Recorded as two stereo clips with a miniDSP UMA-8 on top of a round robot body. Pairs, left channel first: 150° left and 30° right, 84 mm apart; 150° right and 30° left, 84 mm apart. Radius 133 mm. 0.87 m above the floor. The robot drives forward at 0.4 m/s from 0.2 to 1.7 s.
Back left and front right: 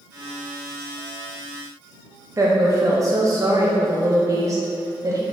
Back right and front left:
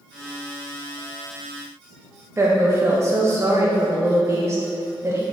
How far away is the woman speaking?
About 0.6 m.